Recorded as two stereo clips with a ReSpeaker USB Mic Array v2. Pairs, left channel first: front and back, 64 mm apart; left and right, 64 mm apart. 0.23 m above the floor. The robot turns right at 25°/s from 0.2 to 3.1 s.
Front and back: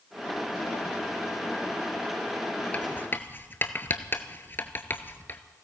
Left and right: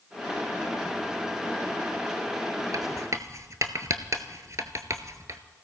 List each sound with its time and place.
2.7 s writing: 65° right, 1.0 m; by 5.4 s 55° right, 1.0 m